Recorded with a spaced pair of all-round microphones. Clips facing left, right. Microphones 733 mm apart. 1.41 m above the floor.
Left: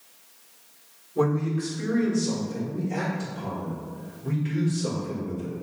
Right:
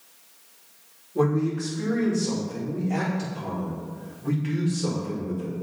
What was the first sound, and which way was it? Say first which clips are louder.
A man speaking: right 1 dB; 65° right (ahead or behind).